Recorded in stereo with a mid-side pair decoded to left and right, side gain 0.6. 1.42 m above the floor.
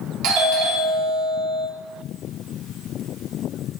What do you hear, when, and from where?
0.2 s a doorbell: 65° right, 1.4 m